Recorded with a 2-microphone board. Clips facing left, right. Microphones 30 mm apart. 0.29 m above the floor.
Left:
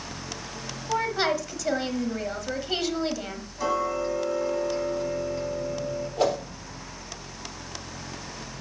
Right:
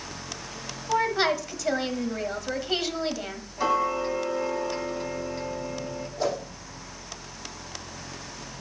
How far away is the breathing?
No breathing in this recording.